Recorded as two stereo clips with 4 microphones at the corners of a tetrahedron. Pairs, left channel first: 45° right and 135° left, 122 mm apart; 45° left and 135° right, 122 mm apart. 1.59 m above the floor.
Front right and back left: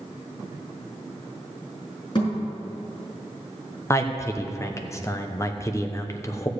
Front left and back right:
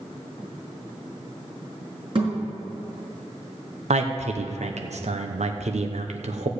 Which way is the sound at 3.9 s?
110° right.